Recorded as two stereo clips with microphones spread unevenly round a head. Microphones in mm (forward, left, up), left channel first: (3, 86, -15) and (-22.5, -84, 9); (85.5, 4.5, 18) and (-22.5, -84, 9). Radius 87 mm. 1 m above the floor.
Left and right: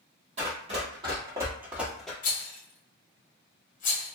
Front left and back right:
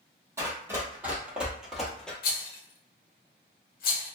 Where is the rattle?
45° left, 0.7 m.